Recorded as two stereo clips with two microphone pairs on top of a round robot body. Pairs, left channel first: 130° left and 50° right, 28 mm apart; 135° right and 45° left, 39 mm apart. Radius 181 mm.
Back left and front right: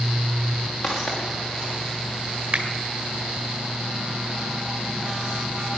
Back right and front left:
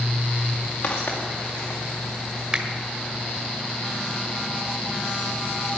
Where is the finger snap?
10° right, 2 m.